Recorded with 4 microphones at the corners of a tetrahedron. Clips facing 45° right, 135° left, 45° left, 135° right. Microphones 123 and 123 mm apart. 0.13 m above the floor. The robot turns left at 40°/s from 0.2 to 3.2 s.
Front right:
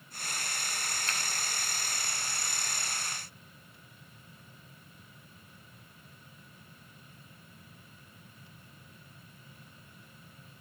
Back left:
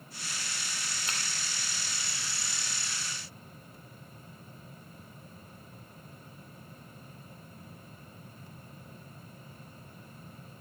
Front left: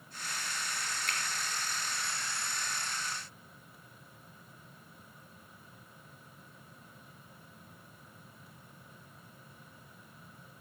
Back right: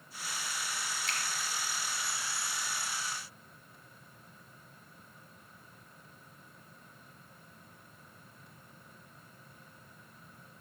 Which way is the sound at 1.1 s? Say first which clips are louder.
Front right 1 dB, front left 1 dB; 65° left.